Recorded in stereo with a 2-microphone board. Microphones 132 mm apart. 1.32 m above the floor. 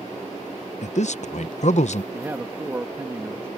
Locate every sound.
0.8 s a man speaking: 60° left (ahead or behind)
2.1 s a man speaking: 20° right (ahead or behind)